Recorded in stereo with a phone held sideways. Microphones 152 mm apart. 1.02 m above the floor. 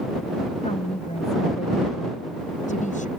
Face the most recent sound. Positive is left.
turn(degrees=55)  # may be behind; listen again after turning